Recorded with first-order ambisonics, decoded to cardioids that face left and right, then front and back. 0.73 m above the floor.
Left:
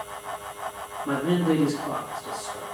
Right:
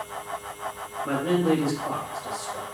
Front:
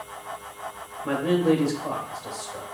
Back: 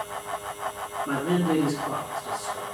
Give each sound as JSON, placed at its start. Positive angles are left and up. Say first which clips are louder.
{"t": 1.0, "sound": "a man speaking", "louder": "right 1 dB, front 4 dB", "azimuth_deg": -30, "distance_m": 1.9}